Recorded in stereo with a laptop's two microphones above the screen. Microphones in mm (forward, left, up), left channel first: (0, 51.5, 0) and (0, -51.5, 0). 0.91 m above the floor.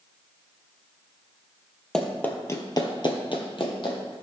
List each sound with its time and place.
1.9 s running footsteps: 5° left (ahead or behind), 1.6 m; by 4.1 s 50° left (ahead or behind), 2.5 m